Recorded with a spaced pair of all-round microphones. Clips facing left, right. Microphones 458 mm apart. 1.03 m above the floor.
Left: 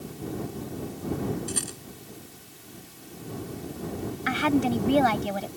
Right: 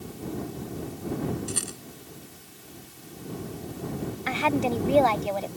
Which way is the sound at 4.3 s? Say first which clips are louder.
Left 3 dB; 30° left (ahead or behind).